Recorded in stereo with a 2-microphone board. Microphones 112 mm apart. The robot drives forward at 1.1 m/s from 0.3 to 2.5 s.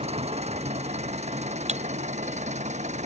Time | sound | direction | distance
0.0 | an engine running | 65° right (ahead or behind) | ?
1.7 | breaking glass | 70° right (ahead or behind) | ?